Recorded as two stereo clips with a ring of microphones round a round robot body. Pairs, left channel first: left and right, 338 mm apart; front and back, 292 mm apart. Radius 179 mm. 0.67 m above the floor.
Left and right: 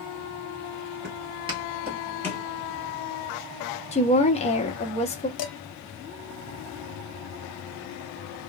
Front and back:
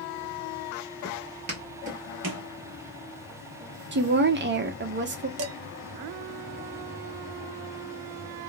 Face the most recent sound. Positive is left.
turn(degrees=135)